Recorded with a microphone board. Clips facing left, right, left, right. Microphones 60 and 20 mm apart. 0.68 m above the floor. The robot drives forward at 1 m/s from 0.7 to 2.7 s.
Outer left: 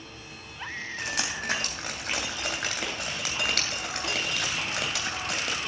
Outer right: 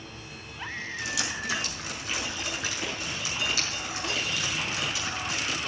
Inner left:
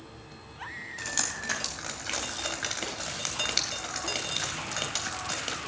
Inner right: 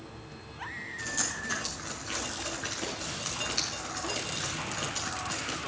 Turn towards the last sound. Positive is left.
turn(degrees=85)